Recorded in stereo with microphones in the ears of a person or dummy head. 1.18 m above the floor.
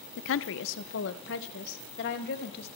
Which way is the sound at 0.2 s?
60° left (ahead or behind).